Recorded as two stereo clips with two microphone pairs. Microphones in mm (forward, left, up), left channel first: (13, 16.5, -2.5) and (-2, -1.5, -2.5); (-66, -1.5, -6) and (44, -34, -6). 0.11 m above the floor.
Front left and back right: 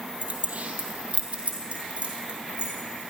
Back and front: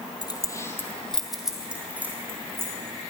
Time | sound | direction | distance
0.2 | keys jangling | 155° right | 1.8 m